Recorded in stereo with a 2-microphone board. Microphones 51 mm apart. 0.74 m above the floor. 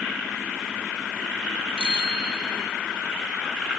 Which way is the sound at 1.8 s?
20° right (ahead or behind).